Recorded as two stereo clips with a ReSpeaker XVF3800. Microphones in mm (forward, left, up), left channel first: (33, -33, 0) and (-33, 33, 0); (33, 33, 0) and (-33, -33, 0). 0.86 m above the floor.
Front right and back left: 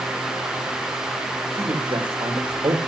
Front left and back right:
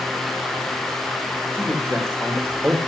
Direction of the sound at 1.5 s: 165° left.